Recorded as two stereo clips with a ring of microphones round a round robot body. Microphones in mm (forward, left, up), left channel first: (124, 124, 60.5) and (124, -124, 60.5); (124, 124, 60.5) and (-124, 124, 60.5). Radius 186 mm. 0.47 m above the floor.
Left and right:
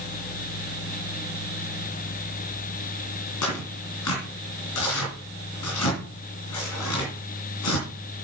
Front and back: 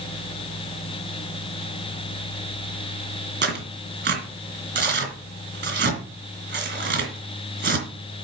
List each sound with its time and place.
3.4 s tearing paper: 135° left, 3 m